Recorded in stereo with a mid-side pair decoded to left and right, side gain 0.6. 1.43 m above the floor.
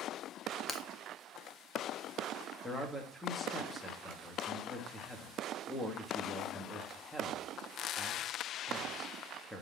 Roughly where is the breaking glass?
Ahead left.